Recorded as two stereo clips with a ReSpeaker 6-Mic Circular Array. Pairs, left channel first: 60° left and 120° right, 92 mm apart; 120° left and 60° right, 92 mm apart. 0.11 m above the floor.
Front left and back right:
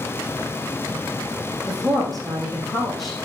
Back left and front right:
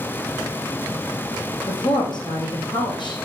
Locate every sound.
1.7 s a woman speaking: 150° left, 4.5 m